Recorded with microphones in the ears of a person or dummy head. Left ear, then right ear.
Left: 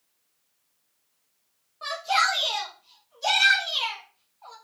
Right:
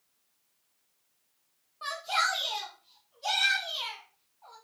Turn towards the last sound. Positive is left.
turn(degrees=70)  # may be behind; listen again after turning